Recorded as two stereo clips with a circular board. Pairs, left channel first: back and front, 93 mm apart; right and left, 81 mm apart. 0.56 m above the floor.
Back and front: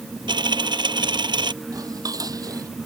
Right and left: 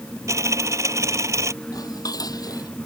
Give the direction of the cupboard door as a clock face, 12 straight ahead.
No cupboard door in this recording.